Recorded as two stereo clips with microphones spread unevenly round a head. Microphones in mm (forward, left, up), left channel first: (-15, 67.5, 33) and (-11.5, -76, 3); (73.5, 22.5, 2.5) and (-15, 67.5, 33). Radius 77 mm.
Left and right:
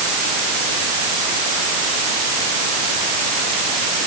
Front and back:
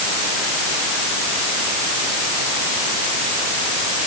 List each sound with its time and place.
Only background noise.